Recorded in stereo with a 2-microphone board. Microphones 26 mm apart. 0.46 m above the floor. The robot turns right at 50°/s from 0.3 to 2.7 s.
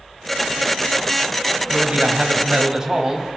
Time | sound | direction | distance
1.7 | a man speaking | 75° right | 3 m